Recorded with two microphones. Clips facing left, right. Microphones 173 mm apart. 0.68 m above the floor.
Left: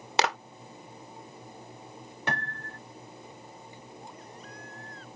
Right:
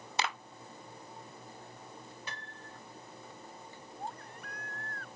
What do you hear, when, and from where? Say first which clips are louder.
0.2 s a clap: left 9 dB; 75° left (ahead or behind)
2.3 s a piano: left 12 dB; 75° left (ahead or behind)
4.0 s a baby crying: right 2 dB; 60° right (ahead or behind)